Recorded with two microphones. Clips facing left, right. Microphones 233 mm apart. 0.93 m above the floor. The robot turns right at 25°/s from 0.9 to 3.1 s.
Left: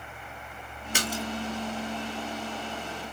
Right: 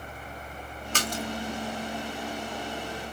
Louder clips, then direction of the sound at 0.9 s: Even; 10° left (ahead or behind).